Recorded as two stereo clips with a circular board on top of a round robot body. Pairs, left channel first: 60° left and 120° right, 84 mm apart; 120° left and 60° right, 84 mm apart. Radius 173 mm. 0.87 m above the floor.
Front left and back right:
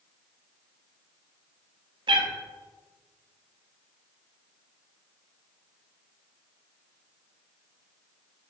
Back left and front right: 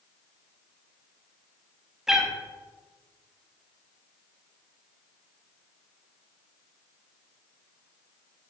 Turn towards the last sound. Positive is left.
turn(degrees=-145)